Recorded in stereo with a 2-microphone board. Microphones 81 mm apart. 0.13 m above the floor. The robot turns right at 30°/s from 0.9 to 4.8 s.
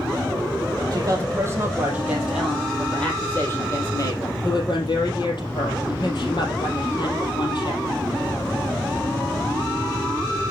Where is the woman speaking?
50° right, 4.5 m; by 7.8 s 65° left, 4.5 m.